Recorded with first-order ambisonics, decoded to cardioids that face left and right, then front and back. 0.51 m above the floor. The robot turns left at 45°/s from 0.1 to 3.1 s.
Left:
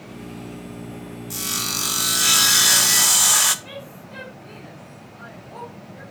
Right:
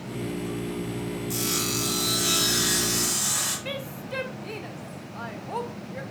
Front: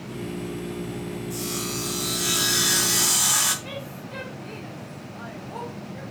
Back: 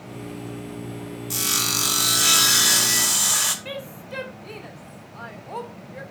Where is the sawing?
175° left, 0.7 m; by 3.5 s 95° left, 0.7 m.